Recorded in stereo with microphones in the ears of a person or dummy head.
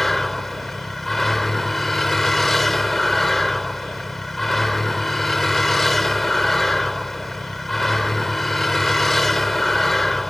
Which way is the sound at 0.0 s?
5° right (ahead or behind).